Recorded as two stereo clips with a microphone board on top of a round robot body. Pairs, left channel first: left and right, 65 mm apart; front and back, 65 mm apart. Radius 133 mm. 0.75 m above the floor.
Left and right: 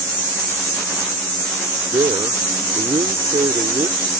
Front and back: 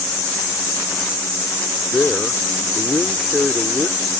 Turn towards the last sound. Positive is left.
turn(degrees=-85)